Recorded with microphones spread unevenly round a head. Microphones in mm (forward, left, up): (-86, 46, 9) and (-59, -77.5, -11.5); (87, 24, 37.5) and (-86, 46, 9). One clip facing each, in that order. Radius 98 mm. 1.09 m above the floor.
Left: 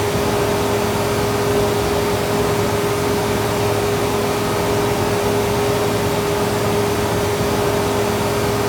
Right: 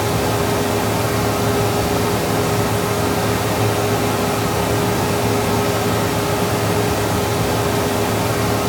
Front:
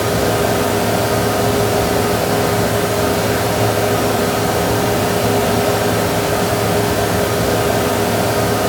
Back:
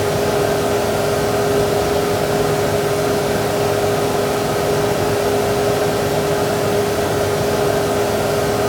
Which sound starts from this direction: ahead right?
A fan, at 0.0 s.